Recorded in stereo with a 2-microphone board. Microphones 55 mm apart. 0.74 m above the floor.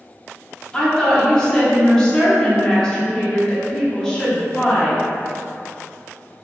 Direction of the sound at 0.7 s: 10° left (ahead or behind).